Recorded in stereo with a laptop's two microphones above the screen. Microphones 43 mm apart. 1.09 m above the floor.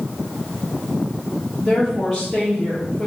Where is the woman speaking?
5° left (ahead or behind), 1.3 m.